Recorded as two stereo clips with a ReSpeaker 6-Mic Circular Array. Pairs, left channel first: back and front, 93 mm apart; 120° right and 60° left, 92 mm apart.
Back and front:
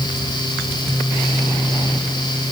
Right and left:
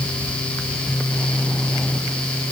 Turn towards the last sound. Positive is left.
No sound to turn to.